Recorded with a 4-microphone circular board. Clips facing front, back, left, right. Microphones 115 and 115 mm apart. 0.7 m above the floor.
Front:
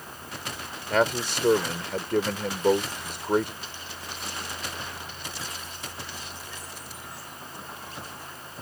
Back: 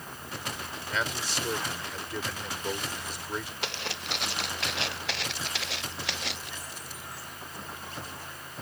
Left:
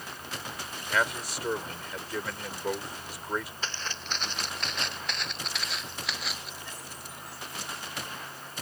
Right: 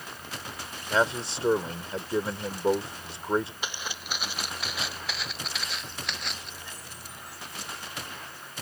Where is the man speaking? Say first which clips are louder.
Front 10 dB, right 4 dB; 30° right.